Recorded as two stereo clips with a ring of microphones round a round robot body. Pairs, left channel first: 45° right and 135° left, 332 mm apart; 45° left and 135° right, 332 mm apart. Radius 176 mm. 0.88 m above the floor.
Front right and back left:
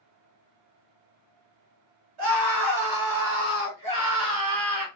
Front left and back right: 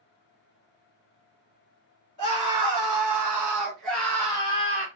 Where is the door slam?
I don't hear a door slam.